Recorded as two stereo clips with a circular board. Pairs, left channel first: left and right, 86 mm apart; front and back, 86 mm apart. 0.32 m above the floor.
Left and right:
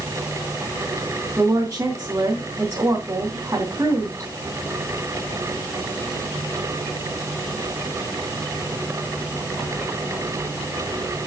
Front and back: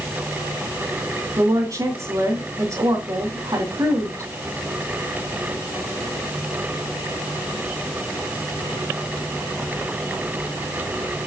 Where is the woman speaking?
145° right, 3 m.